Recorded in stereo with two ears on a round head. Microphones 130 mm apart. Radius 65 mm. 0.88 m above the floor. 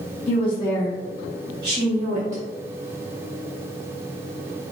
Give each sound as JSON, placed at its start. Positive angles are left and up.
{"t": 0.3, "sound": "a woman speaking", "side_deg": 40, "distance_m": 1.3}